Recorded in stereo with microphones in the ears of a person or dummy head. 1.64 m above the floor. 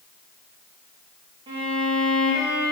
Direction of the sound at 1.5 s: 25° right (ahead or behind).